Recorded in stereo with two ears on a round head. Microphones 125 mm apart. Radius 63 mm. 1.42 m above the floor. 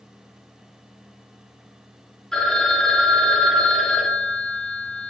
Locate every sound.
2.3 s a phone ringing: 5° left (ahead or behind), 2 m